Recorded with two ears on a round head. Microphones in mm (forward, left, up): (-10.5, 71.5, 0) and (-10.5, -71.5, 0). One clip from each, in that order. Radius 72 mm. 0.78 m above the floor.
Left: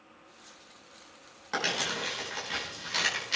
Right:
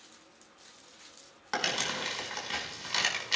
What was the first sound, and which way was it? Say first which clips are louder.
Crumpling: left 1 dB; 25° right (ahead or behind).